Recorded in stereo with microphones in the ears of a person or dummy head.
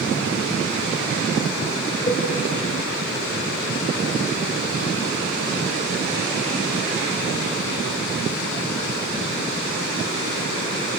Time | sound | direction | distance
2.1 | a cowbell | 30° left (ahead or behind) | 3.5 m